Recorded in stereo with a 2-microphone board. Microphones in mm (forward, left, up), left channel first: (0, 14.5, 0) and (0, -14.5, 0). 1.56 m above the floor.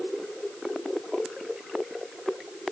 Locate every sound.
Only background noise.